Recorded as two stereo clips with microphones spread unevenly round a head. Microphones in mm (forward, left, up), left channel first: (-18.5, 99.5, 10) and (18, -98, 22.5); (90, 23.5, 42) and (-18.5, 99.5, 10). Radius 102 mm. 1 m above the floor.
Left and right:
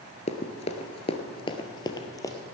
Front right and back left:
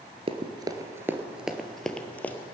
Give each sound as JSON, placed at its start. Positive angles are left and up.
{"t": 0.3, "sound": "running footsteps", "azimuth_deg": 115, "distance_m": 1.0}